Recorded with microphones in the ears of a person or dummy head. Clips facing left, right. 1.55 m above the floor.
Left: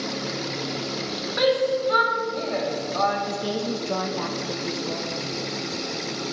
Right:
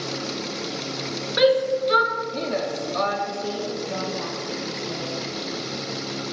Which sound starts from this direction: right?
A shout, at 1.4 s.